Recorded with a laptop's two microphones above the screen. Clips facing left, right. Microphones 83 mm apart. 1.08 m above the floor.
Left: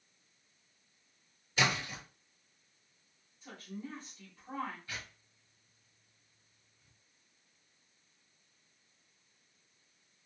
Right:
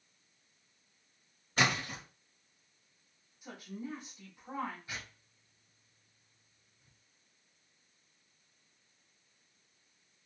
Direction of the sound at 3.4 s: 15° right (ahead or behind).